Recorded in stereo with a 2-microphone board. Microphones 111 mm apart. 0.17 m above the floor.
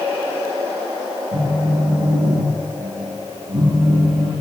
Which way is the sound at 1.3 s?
75° right (ahead or behind).